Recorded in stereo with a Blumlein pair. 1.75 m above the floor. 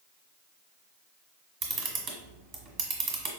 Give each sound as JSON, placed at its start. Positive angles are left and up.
{"t": 1.6, "sound": "a camera shutter", "azimuth_deg": -30, "distance_m": 1.2}